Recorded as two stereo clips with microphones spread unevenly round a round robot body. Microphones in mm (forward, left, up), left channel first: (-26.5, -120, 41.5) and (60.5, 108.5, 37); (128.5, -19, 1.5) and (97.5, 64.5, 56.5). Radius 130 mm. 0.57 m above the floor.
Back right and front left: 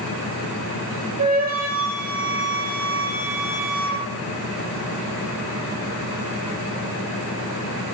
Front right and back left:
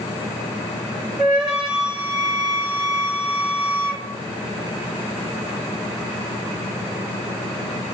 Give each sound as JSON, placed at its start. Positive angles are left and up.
{"t": 1.2, "sound": "a flute", "azimuth_deg": 15, "distance_m": 3.0}